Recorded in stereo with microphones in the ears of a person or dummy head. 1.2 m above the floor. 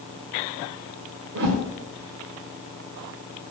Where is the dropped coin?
No dropped coin in this recording.